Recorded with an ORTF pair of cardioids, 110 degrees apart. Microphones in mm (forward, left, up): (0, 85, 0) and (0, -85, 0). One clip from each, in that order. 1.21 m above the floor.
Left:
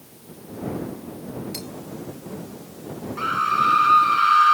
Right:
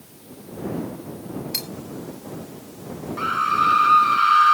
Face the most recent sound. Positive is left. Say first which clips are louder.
# right 1 dB
turn(degrees=0)